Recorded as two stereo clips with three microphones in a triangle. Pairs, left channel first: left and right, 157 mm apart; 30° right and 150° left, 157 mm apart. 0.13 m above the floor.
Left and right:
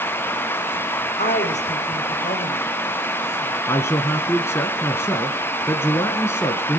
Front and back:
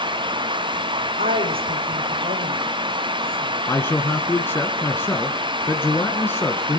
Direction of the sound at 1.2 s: 130° left.